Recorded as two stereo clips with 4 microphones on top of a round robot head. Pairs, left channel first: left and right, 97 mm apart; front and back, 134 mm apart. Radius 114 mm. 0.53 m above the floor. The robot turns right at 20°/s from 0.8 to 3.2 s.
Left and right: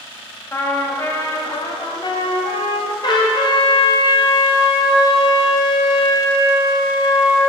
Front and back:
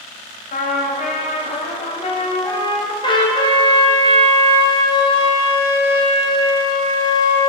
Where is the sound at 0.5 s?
20° left, 1.0 m; by 2.9 s 65° left, 1.0 m.